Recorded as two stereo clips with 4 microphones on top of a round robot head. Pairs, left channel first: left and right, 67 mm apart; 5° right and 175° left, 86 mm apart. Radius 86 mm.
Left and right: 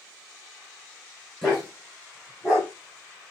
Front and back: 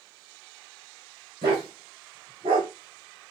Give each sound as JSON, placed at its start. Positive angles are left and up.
{"t": 1.4, "sound": "a dog barking", "azimuth_deg": 175, "distance_m": 2.0}